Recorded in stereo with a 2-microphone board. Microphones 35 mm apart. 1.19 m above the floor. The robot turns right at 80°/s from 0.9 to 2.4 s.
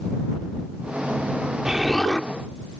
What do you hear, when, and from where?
1.6 s an explosion: 20° right; by 2.3 s 30° left